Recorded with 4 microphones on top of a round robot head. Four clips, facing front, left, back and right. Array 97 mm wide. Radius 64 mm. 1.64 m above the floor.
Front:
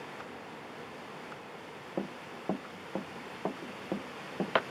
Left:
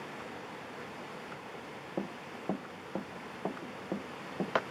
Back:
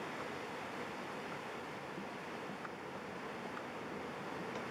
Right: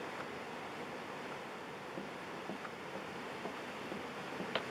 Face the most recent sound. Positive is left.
turn(degrees=25)